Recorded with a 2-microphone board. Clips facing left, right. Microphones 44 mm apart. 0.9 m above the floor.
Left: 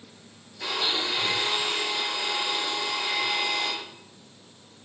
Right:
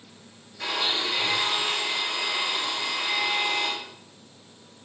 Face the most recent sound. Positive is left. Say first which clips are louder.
# right 1 dB
turn(degrees=-80)